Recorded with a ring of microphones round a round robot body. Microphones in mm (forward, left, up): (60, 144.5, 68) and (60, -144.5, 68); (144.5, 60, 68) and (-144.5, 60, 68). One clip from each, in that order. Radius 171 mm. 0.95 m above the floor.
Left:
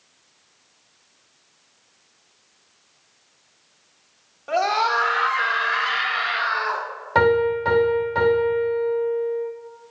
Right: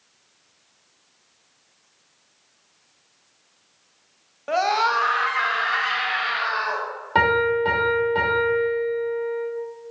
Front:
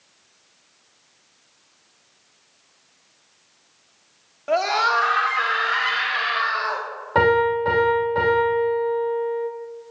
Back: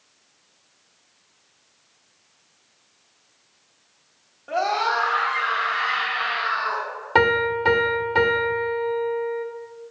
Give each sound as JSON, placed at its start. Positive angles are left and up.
{"t": 4.5, "sound": "a scream", "azimuth_deg": -40, "distance_m": 1.1}
{"t": 7.2, "sound": "a piano", "azimuth_deg": -165, "distance_m": 2.0}